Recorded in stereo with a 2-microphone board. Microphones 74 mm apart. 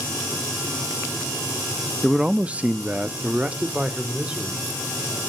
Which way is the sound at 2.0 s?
5° right (ahead or behind).